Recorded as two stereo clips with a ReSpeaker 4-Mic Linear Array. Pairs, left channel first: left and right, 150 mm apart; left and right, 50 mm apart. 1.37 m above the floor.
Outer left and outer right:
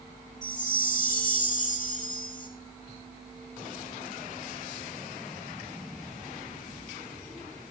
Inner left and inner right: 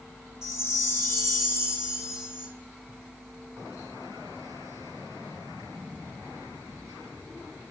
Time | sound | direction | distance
0.4 | a chime | 60° left (ahead or behind) | 1.4 m